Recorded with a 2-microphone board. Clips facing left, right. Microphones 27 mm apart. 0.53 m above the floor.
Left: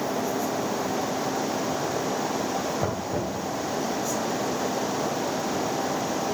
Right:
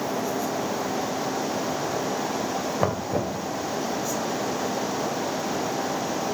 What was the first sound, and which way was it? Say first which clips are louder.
Knocking: right 2 dB; 75° right (ahead or behind).